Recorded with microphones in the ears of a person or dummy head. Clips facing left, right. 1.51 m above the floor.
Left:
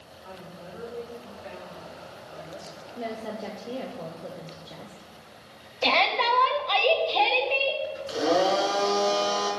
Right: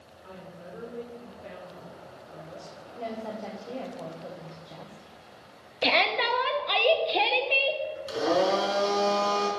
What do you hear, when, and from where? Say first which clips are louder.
0.2 s a woman speaking: left 1 dB; 90° right, 4 m
3.0 s a woman speaking: left 1 dB; 10° left (ahead or behind), 1.1 m
5.8 s a shout: left 1 dB; 25° right (ahead or behind), 0.8 m
8.1 s a blender: left 1 dB; 55° right (ahead or behind), 4 m